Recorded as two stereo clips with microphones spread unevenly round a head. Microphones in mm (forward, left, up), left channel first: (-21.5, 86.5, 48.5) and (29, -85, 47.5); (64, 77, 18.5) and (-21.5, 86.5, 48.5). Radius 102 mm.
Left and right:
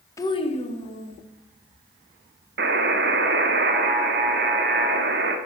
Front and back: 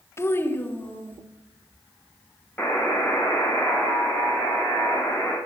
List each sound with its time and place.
0.2 s a child speaking: 35° left, 0.7 m; by 1.2 s 60° left, 2 m
2.6 s a buzzer: 100° right, 0.6 m